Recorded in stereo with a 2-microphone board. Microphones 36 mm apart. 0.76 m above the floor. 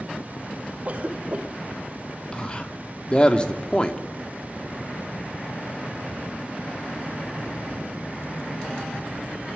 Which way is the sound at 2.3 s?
25° left (ahead or behind).